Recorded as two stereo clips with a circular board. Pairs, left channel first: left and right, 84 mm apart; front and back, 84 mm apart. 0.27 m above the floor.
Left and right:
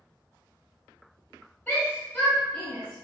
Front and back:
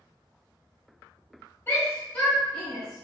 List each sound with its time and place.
1.7 s a shout: 40° left, 1.2 m; by 3.0 s 135° left, 1.0 m